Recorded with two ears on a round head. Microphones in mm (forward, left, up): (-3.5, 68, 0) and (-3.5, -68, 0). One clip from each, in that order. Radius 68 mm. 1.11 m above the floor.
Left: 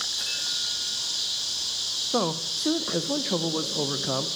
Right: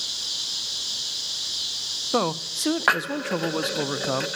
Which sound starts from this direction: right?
A man speaking, at 2.1 s.